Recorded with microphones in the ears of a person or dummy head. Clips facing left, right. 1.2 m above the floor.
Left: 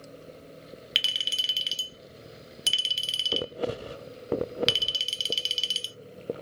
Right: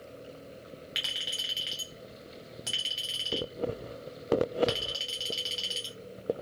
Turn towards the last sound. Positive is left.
turn(degrees=40)  # may be behind; listen again after turning